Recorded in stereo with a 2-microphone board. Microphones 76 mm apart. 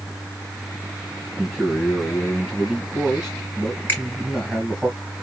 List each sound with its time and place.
1.4 s a man speaking: centre (ahead or behind), 1.6 m
3.9 s a finger snap: 25° left (ahead or behind), 3 m